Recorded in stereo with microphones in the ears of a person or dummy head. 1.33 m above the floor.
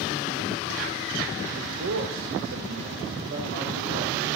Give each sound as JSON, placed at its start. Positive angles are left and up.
{"t": 1.6, "sound": "a man speaking", "side_deg": -45, "distance_m": 1.1}